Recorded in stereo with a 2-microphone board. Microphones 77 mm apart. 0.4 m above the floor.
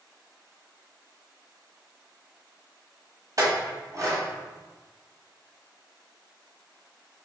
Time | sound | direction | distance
3.4 | a clink | 45° right (ahead or behind) | 1.4 m